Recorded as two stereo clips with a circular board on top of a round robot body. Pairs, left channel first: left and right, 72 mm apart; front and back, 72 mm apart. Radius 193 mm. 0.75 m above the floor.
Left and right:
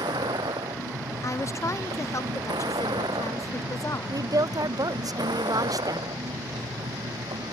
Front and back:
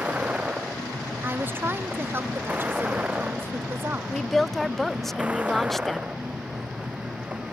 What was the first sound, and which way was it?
A vehicle, 105° right.